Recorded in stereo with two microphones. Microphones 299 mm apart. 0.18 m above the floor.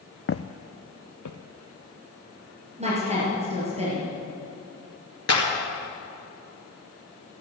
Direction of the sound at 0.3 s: 45° left (ahead or behind).